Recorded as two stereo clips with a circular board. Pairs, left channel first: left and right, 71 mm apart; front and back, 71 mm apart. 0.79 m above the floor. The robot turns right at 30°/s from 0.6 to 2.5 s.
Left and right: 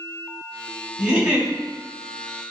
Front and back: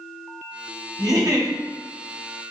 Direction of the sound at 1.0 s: 170° right.